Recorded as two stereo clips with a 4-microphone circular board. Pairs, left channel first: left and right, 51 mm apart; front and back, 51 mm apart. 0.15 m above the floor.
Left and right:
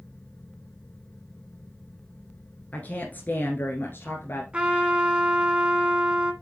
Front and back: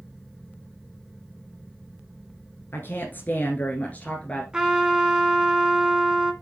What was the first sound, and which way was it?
A woman speaking, 35° left.